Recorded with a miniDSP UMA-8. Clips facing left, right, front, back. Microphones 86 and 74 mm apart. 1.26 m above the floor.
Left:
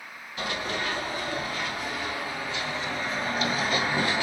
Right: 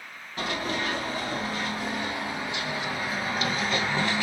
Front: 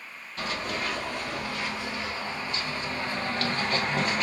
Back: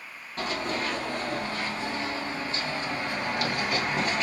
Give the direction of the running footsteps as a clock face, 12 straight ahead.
4 o'clock.